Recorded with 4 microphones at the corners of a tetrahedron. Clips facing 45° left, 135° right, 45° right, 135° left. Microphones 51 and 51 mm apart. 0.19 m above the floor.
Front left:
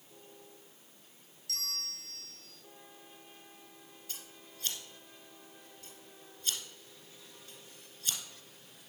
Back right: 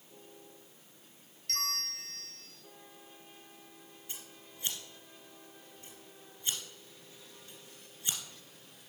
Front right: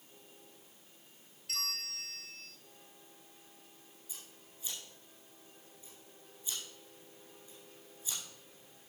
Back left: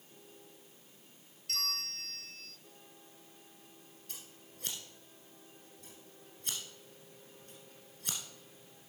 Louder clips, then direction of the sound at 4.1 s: Even, back left 2 dB; 155° left.